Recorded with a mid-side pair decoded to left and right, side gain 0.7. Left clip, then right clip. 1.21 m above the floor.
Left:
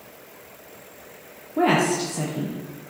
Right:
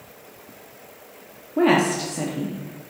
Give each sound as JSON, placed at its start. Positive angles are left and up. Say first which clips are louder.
{"t": 1.6, "sound": "a woman speaking", "louder": "right 1 dB", "azimuth_deg": -5, "distance_m": 0.7}